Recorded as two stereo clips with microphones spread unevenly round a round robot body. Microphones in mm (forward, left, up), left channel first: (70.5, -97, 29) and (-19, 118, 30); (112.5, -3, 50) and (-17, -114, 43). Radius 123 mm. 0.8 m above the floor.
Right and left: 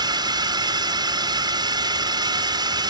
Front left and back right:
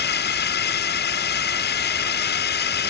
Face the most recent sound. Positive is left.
turn(degrees=40)